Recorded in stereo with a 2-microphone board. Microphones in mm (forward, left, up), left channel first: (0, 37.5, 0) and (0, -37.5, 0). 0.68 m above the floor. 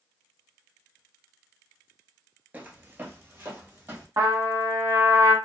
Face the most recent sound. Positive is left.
turn(degrees=-45)  # may be behind; listen again after turning